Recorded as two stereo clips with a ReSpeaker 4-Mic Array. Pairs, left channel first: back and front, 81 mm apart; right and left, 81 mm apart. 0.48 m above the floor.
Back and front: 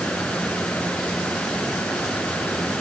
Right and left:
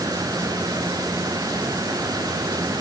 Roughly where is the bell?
I don't hear a bell.